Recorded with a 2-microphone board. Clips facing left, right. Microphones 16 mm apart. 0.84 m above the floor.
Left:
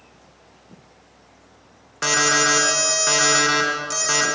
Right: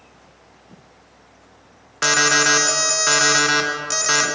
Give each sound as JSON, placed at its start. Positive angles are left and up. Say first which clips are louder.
{"t": 2.0, "sound": "an alarm", "louder": "right 2 dB", "side_deg": -20, "distance_m": 0.9}